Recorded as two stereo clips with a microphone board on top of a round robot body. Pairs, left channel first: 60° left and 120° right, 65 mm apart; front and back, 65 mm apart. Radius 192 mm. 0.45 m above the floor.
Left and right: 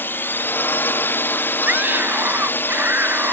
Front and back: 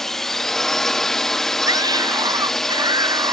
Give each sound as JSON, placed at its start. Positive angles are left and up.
{"t": 0.0, "sound": "a drone", "azimuth_deg": 80}
{"t": 1.7, "sound": "a scream", "azimuth_deg": 180}